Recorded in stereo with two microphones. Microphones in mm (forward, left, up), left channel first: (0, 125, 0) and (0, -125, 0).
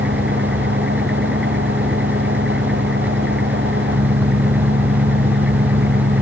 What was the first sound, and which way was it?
An engine running, 50° right (ahead or behind).